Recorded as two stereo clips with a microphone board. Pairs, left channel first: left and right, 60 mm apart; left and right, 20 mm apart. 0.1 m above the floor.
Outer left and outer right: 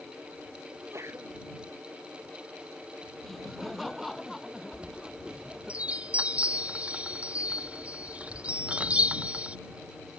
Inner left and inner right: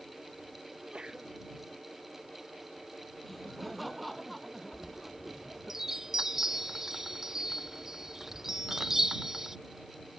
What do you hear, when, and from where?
0.7 s a sneeze: 50° right (ahead or behind)
3.2 s laughter: centre (ahead or behind)
4.7 s a chime: 20° right (ahead or behind)